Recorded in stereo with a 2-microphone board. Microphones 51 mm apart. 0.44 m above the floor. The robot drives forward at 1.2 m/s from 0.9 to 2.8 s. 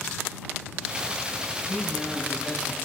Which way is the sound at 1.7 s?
10° left (ahead or behind).